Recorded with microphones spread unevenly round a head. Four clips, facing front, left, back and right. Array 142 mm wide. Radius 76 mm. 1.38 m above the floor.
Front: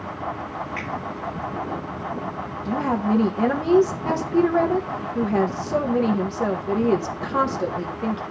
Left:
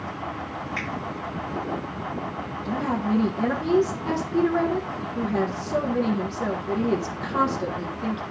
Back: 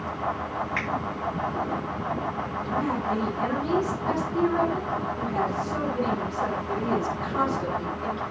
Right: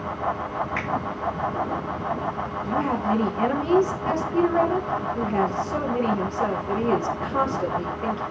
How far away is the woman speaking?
About 1.4 m.